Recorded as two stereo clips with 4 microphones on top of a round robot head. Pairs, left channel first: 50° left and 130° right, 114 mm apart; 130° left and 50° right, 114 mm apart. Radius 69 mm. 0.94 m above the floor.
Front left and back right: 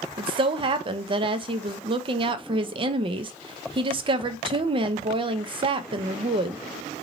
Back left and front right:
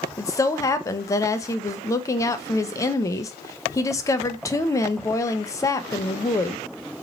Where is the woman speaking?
170° right, 0.5 m.